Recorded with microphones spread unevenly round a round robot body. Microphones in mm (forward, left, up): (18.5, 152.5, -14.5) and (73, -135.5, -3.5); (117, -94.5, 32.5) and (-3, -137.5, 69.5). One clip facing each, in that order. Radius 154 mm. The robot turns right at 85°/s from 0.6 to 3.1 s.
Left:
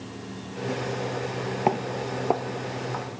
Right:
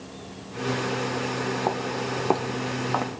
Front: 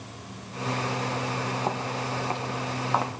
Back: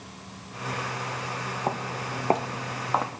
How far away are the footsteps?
About 0.7 m.